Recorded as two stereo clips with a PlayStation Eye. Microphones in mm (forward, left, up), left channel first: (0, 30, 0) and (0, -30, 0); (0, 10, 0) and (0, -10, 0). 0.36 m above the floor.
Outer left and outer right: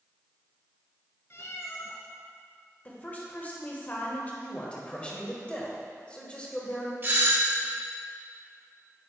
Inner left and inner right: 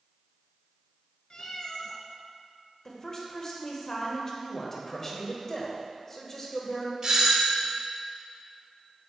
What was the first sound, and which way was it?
A cat meowing, 50° left (ahead or behind).